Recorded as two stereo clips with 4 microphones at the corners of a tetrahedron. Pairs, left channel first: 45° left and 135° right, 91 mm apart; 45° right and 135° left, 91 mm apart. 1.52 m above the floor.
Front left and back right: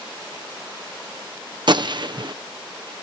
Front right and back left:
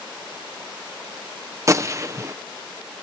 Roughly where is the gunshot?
Behind.